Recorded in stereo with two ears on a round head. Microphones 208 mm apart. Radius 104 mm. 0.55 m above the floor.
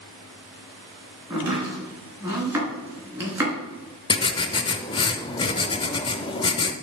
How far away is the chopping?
About 3.5 m.